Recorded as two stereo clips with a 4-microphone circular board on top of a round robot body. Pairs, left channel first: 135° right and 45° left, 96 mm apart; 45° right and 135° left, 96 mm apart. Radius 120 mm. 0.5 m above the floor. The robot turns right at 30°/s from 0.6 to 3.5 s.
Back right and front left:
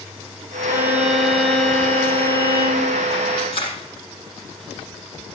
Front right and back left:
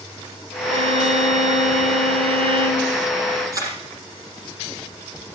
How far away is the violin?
About 1.8 m.